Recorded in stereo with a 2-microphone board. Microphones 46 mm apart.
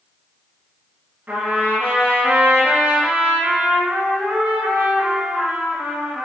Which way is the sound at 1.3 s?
55° right (ahead or behind).